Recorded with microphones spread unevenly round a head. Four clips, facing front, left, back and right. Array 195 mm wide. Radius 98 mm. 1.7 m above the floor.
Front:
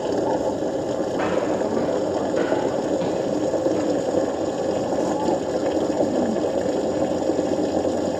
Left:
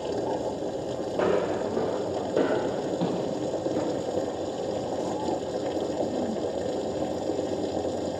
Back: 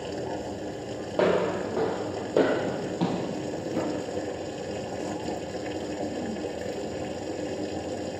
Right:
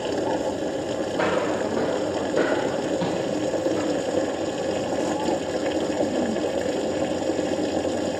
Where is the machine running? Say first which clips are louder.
Right 4 dB, front 11 dB; 15° right, 0.8 m.